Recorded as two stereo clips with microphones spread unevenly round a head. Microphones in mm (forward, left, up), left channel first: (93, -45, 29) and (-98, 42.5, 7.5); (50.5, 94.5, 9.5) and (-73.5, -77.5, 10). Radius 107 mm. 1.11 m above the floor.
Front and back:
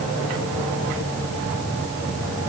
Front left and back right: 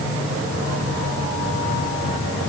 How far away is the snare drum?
I don't hear a snare drum.